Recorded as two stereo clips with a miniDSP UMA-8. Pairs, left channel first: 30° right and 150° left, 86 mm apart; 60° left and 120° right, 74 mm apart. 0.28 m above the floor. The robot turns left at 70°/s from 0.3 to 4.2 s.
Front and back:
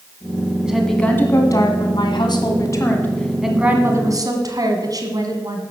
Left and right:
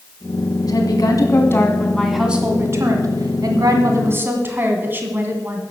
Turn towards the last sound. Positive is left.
turn(degrees=-175)